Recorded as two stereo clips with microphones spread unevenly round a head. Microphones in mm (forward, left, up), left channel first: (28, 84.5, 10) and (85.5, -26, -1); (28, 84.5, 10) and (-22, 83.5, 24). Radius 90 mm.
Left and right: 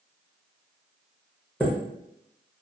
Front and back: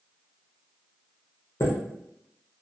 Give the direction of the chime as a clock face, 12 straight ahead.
11 o'clock.